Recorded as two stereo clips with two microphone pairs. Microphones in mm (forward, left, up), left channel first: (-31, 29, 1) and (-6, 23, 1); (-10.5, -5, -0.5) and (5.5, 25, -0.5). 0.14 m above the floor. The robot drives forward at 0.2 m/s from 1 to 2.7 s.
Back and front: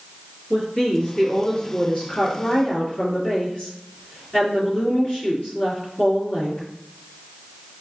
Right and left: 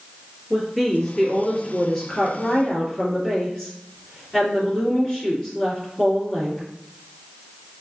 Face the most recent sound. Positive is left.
turn(degrees=175)